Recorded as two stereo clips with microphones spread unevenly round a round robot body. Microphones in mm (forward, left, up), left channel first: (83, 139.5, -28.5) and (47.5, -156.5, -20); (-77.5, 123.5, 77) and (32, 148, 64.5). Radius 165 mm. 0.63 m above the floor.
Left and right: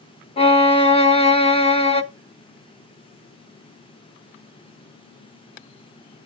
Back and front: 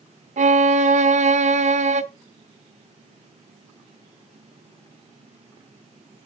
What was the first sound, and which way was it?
A violin, 10° left.